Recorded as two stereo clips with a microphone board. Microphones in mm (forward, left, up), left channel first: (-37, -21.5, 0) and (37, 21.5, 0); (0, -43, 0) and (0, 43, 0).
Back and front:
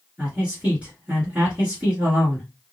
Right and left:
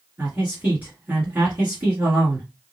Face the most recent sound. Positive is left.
turn(degrees=75)